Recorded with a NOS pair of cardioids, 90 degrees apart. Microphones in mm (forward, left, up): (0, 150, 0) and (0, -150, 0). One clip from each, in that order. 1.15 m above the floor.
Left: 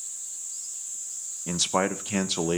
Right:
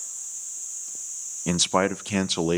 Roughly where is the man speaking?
Ahead right.